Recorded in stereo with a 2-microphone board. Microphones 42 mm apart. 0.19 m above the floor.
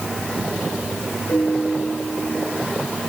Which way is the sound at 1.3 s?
55° left (ahead or behind).